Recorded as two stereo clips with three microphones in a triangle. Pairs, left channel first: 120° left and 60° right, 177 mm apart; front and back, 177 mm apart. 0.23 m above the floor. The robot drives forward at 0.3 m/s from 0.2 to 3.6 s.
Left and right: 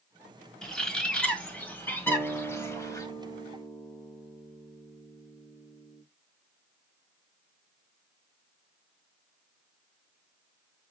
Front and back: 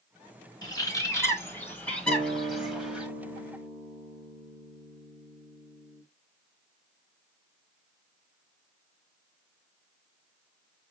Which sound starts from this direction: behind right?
A guitar, at 2.1 s.